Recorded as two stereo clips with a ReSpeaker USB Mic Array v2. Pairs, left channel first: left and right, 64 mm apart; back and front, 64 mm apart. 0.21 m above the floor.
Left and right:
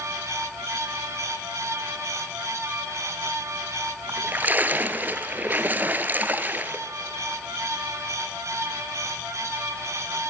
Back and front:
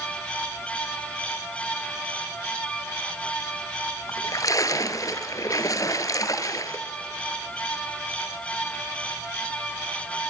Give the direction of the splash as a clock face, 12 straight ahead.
5 o'clock.